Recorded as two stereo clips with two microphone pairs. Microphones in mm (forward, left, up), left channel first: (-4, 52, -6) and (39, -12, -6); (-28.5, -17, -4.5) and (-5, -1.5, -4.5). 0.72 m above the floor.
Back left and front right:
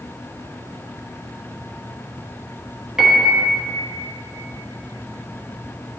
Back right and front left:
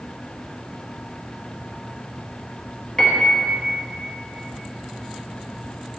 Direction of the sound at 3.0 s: 130° right.